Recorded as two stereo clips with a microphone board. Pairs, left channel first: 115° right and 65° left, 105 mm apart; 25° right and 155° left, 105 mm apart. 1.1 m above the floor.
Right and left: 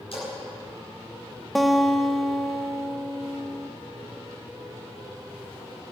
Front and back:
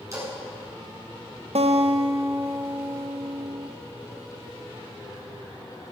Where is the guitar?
155° left, 0.7 m.